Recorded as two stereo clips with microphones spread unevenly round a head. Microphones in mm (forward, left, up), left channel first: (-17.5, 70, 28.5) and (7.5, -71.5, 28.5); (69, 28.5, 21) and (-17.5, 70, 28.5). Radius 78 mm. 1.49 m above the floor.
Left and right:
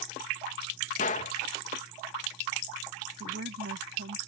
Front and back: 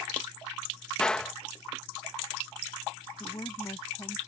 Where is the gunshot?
60° left.